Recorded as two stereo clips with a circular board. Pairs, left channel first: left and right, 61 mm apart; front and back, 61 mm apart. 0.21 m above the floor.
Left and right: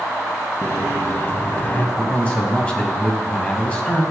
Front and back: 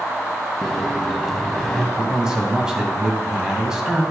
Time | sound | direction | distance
0.6 | a microwave | 85° left | 0.8 m
2.0 | a man speaking | 120° left | 1.3 m